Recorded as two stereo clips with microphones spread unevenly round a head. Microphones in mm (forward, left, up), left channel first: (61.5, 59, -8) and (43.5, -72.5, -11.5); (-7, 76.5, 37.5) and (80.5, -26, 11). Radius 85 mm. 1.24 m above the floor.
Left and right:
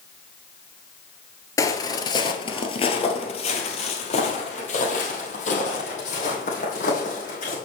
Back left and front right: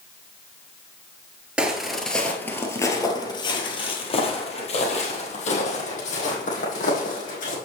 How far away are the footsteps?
About 1.4 m.